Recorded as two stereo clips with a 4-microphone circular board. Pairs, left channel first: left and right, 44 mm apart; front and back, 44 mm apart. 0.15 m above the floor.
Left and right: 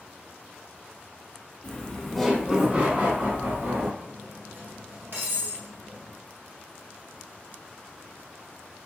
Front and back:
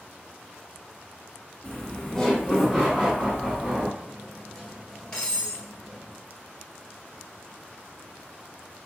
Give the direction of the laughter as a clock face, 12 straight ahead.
10 o'clock.